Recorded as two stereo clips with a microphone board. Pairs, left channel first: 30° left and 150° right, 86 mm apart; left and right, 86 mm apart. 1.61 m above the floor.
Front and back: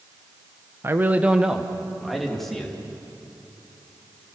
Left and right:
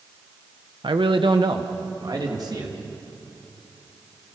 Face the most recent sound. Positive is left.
turn(degrees=-55)